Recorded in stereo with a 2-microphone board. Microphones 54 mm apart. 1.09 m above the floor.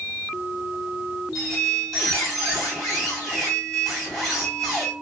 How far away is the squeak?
About 3 m.